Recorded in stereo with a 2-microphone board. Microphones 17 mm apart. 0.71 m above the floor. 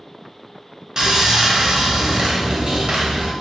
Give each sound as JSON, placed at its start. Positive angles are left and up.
{"t": 1.0, "sound": "sawing", "side_deg": -55, "distance_m": 0.7}